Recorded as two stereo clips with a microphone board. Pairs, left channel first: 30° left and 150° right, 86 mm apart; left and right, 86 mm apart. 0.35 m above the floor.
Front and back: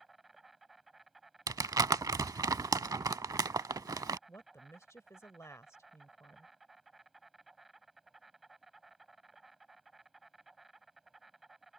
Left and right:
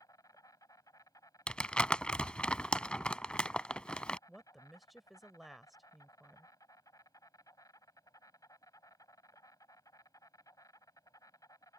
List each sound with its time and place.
0.0 s an insect: 125° left
1.5 s crumpling: 170° left
4.3 s a woman speaking: straight ahead